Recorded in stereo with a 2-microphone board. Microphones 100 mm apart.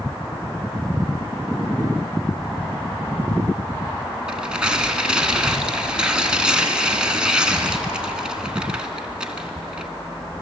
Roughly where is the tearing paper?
Centre.